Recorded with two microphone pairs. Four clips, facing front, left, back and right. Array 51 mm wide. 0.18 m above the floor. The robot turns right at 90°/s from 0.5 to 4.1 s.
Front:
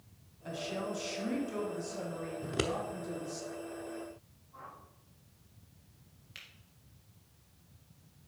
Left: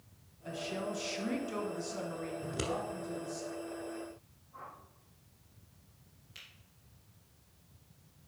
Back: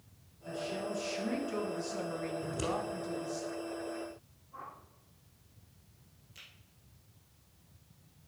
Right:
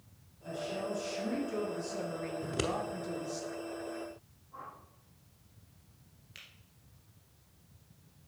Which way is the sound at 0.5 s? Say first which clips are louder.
Right 1 dB, even; 5° left.